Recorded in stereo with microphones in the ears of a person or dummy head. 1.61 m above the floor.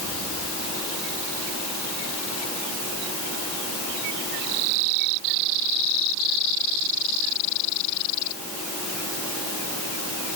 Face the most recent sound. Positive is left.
No sound to turn to.